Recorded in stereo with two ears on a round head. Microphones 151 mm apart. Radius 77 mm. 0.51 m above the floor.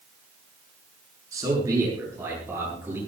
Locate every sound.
1.3 s a man speaking: 20° right (ahead or behind), 8 m; by 3.0 s 15° right (ahead or behind), 10.5 m